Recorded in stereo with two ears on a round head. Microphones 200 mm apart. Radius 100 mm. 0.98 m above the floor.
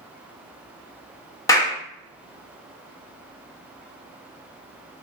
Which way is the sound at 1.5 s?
15° left (ahead or behind).